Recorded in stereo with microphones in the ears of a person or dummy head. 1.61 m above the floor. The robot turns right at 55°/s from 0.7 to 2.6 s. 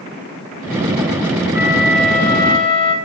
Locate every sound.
1.5 s a flute: 25° right, 1.1 m; by 3.0 s 35° left, 1.1 m